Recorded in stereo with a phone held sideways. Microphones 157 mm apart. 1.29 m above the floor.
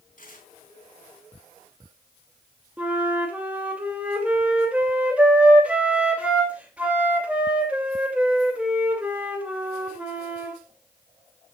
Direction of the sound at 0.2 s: 55° left (ahead or behind).